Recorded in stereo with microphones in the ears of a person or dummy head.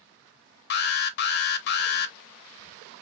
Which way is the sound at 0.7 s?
50° left (ahead or behind).